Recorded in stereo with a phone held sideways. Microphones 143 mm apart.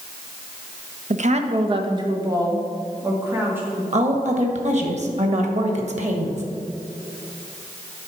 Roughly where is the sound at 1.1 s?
Right.